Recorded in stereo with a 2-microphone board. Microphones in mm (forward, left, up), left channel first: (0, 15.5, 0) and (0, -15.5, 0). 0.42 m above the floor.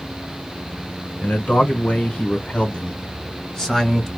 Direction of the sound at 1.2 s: 50° left (ahead or behind).